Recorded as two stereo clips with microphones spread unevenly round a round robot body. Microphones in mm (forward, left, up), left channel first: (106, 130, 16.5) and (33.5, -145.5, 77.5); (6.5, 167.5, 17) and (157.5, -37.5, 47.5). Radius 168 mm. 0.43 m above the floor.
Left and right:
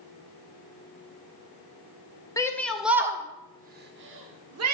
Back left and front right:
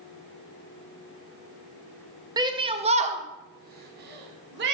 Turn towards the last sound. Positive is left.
turn(degrees=-90)